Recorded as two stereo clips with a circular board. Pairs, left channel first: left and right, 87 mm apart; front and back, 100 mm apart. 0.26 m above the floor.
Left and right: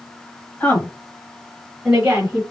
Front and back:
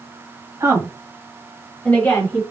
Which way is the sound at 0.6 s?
145° left.